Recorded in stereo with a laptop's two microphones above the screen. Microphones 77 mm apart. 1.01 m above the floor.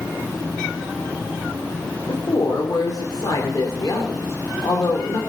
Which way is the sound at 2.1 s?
60° left (ahead or behind).